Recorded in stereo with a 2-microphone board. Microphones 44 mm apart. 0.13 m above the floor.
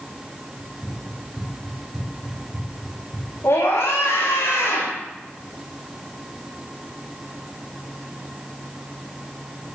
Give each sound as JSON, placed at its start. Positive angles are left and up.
{"t": 0.6, "sound": "running footsteps", "side_deg": 5, "distance_m": 7.5}
{"t": 3.4, "sound": "a scream", "side_deg": 65, "distance_m": 7.5}